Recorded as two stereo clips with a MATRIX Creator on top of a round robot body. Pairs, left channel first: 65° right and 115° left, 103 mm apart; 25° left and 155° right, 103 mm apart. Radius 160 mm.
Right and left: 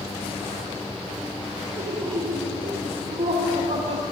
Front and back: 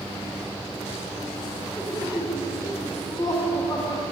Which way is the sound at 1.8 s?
75° left.